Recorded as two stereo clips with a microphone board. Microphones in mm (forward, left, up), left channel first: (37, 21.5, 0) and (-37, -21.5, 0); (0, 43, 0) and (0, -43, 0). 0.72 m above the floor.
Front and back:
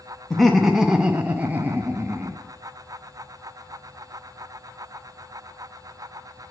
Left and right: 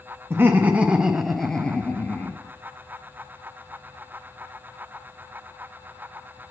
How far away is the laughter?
About 0.7 m.